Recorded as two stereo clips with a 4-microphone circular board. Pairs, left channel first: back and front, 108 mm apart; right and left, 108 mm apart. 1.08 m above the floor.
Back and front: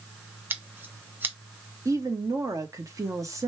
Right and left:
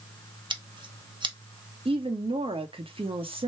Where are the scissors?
70° left, 0.9 m.